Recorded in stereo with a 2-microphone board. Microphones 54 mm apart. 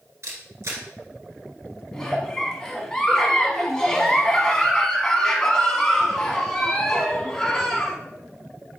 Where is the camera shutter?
60° right (ahead or behind), 1.2 m.